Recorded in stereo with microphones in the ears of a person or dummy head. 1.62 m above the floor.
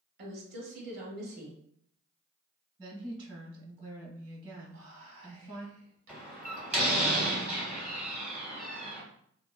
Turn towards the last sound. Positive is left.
turn(degrees=-5)  # may be behind; listen again after turning